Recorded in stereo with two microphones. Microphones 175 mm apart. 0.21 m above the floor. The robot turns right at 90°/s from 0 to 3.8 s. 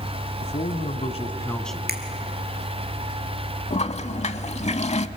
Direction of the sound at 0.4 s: 60° left.